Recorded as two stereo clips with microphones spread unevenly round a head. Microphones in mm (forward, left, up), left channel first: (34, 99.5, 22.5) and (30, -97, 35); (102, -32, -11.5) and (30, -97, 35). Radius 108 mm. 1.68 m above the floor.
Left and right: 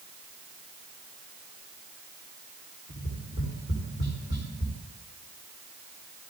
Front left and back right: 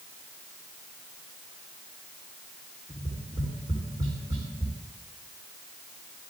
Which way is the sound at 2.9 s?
155° right.